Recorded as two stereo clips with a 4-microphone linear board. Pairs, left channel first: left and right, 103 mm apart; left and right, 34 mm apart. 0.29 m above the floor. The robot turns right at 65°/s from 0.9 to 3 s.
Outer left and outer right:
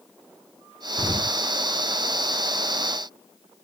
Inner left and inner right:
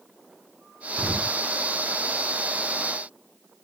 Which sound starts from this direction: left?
An explosion, at 1.0 s.